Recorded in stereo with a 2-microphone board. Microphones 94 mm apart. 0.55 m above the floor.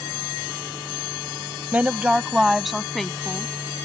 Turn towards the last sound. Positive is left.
turn(degrees=10)  # may be behind; listen again after turning